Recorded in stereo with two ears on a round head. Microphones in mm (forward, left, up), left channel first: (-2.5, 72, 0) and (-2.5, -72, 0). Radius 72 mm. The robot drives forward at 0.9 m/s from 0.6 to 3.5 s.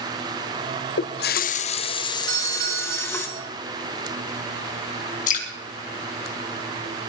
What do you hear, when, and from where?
1.0 s a running tap: 80° left, 0.6 m; by 3.3 s 15° left (ahead or behind), 2 m
2.3 s a doorbell: 75° right (ahead or behind), 5 m; by 3.4 s 65° right (ahead or behind), 5.5 m
5.3 s dripping: 55° left (ahead or behind), 3.5 m